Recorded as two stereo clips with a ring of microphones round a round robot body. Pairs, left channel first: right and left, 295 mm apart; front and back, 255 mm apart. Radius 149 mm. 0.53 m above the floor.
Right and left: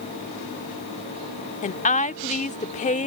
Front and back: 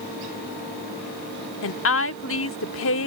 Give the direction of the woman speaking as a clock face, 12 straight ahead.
1 o'clock.